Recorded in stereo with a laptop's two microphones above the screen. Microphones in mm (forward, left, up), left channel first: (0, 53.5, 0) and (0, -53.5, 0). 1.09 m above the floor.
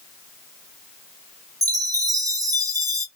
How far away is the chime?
About 0.8 m.